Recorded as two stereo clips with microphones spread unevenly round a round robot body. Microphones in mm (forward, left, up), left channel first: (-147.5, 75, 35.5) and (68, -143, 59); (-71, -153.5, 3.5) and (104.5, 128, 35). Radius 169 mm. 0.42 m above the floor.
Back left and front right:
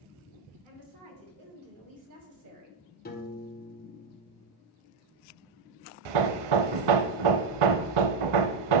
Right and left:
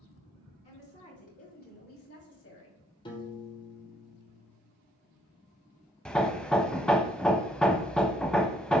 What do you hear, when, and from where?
0.6 s a woman speaking: 50° right, 4.5 m; by 2.8 s 80° right, 2.5 m
3.0 s a piano: 175° left, 1.5 m
6.0 s hammering: 35° right, 0.5 m